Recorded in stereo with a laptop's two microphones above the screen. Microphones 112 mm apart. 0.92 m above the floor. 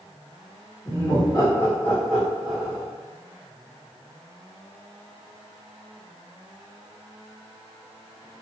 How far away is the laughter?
About 1.2 m.